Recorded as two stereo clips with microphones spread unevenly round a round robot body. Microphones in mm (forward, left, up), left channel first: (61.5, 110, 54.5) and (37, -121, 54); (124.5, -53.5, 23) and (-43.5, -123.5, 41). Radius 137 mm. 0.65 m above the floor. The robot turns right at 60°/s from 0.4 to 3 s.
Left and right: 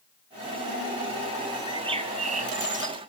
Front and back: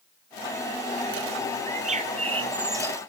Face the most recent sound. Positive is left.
turn(degrees=-75)